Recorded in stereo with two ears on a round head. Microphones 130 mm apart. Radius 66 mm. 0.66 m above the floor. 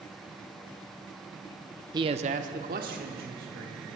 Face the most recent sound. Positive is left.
turn(degrees=-65)  # may be behind; listen again after turning